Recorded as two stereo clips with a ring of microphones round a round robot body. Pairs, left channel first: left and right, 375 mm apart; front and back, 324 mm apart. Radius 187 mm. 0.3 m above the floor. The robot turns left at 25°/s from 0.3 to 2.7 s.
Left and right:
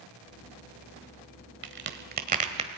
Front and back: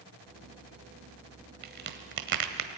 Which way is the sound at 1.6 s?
130° right.